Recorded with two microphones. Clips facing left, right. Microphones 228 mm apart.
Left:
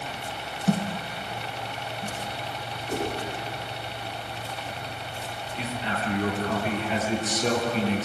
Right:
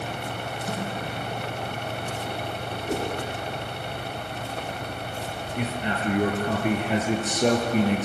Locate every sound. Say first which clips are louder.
0.7 s a thud: left 7 dB; 30° left (ahead or behind), 3 m
2.9 s a whoosh: right 1 dB; 65° right (ahead or behind), 5.5 m
5.6 s a man speaking: right 3 dB; 60° right (ahead or behind), 4 m